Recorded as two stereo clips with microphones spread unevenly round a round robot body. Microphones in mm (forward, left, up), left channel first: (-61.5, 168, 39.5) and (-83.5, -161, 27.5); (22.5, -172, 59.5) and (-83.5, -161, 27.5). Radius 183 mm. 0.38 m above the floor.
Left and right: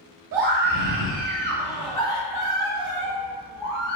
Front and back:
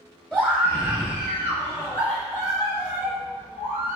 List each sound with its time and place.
0.3 s a scream: 100° right, 1.6 m; by 4.0 s 70° left, 2 m